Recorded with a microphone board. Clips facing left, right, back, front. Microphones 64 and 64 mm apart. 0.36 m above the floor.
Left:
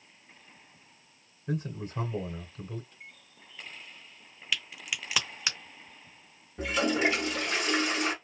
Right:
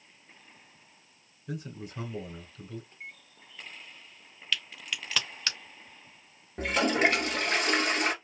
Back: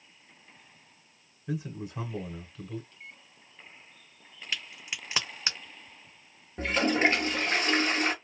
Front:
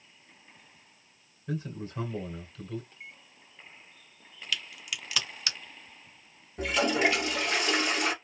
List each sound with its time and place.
1.5 s a man speaking: 100° left, 1.1 m
2.9 s a microwave: 55° right, 1.1 m
4.5 s a crack: 155° left, 0.7 m
6.6 s a toilet flushing: 130° right, 1.0 m